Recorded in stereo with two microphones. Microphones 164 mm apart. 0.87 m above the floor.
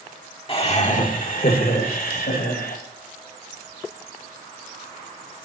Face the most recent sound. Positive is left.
turn(degrees=80)